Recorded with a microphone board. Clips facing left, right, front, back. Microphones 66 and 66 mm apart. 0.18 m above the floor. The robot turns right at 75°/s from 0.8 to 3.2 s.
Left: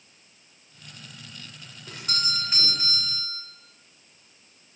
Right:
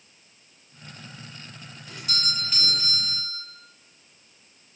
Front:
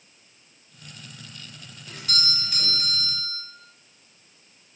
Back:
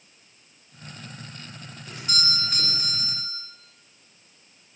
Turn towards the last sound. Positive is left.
turn(degrees=-150)